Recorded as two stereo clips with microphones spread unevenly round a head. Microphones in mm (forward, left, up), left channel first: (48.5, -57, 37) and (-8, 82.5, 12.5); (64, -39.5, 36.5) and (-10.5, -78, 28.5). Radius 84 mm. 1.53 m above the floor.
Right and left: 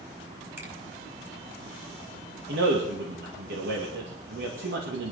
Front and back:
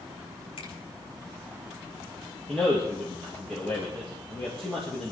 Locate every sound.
0.6 s a finger snap: 40° left, 5.5 m
2.5 s a man speaking: 115° left, 2.5 m